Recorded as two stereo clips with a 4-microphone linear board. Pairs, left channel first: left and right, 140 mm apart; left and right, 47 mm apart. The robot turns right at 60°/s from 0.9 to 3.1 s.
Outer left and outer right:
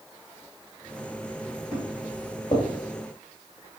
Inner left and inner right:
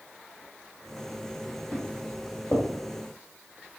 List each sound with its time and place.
1.7 s footsteps: 35° left (ahead or behind), 2 m; by 2.7 s 45° left (ahead or behind), 2 m